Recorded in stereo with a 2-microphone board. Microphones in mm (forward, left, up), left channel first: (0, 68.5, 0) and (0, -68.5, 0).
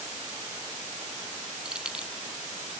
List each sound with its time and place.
1.6 s keys jangling: 5° right (ahead or behind)